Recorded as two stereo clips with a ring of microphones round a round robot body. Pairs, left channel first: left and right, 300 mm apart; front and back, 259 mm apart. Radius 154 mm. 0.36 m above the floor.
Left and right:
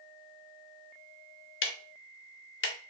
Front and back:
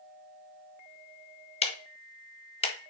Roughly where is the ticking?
Ahead left.